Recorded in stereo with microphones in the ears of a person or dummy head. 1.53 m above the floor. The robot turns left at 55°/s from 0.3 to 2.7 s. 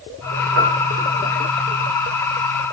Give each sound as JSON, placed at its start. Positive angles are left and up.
{"t": 0.6, "sound": "a piano", "azimuth_deg": -85, "distance_m": 6.5}